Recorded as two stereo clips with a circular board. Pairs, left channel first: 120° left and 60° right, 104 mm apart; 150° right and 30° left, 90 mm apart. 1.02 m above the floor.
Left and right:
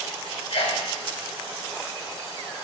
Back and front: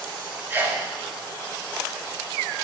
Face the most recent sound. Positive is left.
turn(degrees=95)